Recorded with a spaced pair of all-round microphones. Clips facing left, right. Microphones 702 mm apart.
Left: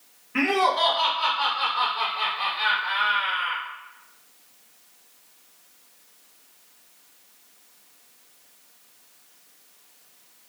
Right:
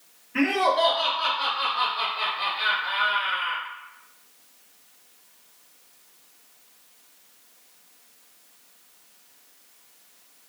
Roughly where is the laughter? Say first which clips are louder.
Right 1 dB; left.